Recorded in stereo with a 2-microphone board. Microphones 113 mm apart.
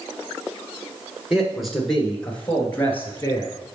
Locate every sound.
1.3 s a man speaking: 5° right (ahead or behind), 2 m; by 3.5 s 25° left (ahead or behind), 2.5 m